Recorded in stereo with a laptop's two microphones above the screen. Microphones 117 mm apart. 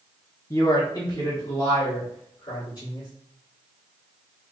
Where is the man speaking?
25° left (ahead or behind), 0.6 m; by 3.1 s 40° left (ahead or behind), 3 m.